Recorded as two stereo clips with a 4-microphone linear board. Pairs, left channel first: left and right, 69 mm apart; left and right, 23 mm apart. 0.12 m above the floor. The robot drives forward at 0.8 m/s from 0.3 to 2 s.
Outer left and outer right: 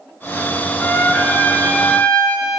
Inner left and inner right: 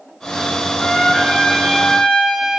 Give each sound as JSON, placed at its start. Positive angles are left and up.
{"t": 0.8, "sound": "a trumpet", "side_deg": 20, "distance_m": 1.9}